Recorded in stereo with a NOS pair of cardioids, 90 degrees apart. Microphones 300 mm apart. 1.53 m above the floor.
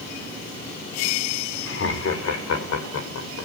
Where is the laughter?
45° left, 5.5 m; by 3.5 s 60° left, 7.5 m.